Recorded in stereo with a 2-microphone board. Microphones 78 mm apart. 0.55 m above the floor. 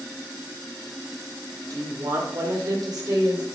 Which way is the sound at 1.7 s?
45° right (ahead or behind).